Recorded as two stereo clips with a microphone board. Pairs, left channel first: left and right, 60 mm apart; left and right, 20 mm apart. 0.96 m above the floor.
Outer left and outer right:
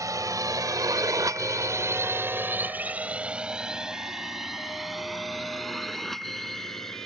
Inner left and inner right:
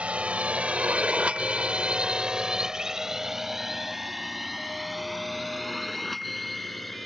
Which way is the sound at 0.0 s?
70° right (ahead or behind).